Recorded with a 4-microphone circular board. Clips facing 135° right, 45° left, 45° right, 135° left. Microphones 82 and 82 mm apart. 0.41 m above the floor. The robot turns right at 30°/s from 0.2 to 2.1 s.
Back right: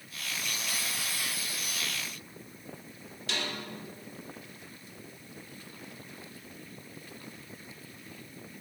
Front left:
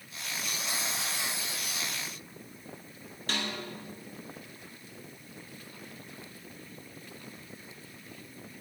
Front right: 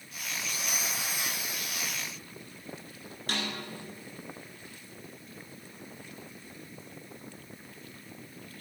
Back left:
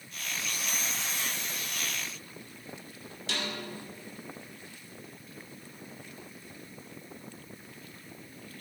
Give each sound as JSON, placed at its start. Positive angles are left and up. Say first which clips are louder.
{"t": 3.3, "sound": "a snare drum", "louder": "front left 1 dB, front right 1 dB", "azimuth_deg": 0, "distance_m": 2.5}